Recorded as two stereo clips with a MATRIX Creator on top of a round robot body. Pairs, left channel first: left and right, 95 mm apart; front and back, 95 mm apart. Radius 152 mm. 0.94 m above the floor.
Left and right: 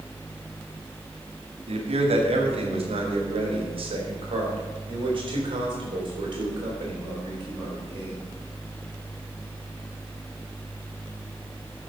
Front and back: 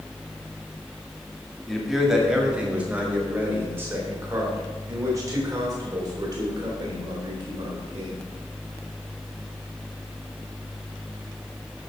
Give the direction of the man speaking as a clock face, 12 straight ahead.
3 o'clock.